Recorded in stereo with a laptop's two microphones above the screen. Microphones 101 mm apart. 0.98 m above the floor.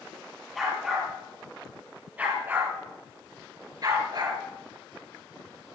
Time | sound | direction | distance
0.6 | a dog barking | centre (ahead or behind) | 7 m